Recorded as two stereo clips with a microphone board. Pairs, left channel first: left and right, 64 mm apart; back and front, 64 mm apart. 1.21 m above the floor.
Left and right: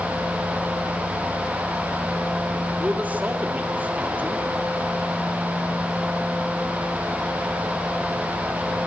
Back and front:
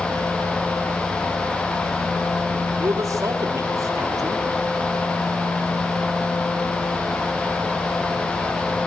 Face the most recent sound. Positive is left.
turn(degrees=-25)